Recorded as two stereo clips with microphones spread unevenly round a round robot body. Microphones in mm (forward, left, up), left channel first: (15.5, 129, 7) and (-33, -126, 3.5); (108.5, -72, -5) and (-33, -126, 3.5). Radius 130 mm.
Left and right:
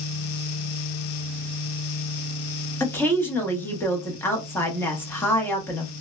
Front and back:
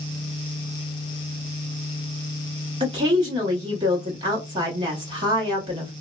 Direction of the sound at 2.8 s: 155° left.